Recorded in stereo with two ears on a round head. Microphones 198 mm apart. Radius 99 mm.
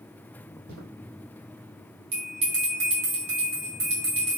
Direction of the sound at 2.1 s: 30° right (ahead or behind).